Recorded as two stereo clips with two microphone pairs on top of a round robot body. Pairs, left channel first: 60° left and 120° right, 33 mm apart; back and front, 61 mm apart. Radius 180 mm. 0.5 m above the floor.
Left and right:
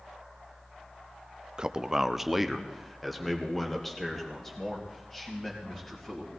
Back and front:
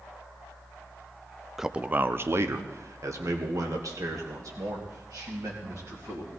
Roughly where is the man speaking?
Right.